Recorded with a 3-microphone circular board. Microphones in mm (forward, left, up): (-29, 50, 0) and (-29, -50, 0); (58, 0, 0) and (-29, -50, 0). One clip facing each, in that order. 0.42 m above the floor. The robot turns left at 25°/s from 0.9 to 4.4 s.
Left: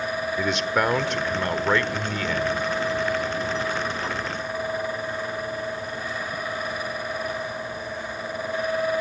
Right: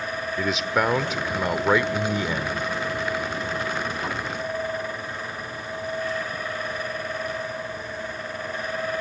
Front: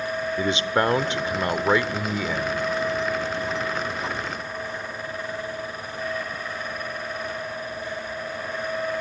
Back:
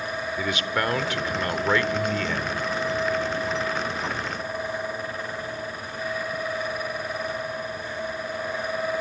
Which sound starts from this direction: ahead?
A man speaking, at 0.4 s.